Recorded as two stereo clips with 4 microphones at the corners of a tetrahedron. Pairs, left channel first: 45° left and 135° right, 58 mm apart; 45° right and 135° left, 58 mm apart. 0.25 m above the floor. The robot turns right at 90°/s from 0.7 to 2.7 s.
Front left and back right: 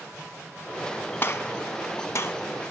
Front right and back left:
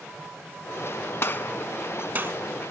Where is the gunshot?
10° right, 0.6 m; by 2.4 s 95° left, 0.6 m.